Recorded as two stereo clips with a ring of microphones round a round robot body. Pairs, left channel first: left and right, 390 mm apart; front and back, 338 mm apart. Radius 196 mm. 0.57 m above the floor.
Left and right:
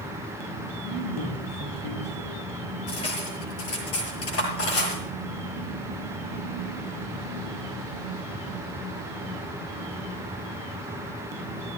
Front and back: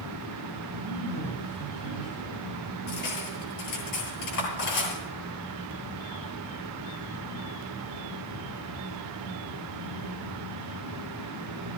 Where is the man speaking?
20° left, 7 m; by 2.5 s 15° left, 9 m.